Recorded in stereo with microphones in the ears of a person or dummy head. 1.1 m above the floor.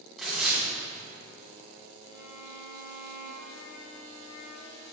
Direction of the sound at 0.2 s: Centre (ahead or behind).